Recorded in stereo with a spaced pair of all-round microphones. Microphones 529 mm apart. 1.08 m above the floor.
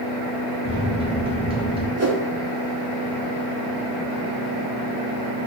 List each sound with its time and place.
0.7 s a microwave: 10° right (ahead or behind), 0.6 m
2.0 s a whoosh: 30° right (ahead or behind), 0.5 m